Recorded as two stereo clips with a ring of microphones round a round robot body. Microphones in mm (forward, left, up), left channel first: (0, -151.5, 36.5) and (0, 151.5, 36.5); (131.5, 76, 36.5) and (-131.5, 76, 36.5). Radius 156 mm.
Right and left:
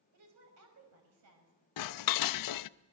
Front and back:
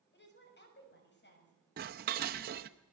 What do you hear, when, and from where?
0.1 s a woman speaking: 50° left, 6 m
1.8 s dishes clattering: 120° right, 0.5 m